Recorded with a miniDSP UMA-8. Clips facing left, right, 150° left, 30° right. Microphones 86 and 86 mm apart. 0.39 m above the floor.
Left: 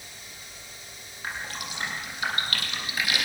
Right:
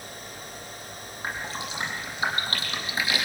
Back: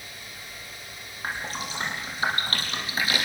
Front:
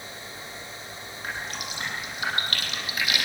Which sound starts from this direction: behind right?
Dripping, at 1.2 s.